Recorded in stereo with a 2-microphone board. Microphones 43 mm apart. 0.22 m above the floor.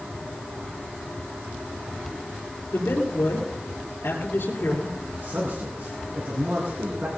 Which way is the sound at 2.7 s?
60° left (ahead or behind).